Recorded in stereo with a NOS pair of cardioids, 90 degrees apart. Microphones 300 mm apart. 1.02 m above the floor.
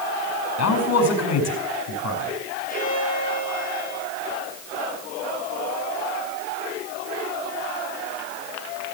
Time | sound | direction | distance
0.6 | a man speaking | 60° left | 6 m
2.7 | a violin | 25° left | 5.5 m